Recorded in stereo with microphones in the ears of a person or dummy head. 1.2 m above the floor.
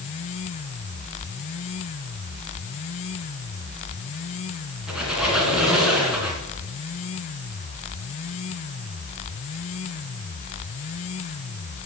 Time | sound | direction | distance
4.9 | a squeak | 5° right (ahead or behind) | 2.0 m